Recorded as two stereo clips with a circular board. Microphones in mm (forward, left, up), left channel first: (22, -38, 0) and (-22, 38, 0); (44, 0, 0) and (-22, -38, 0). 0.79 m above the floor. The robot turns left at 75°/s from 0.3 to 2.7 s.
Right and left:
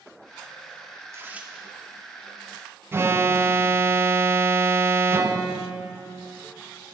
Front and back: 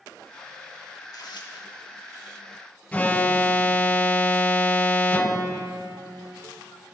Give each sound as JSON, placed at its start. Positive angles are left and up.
{"t": 1.0, "sound": "tearing paper", "azimuth_deg": 75, "distance_m": 1.0}
{"t": 2.9, "sound": "an alarm", "azimuth_deg": 85, "distance_m": 0.5}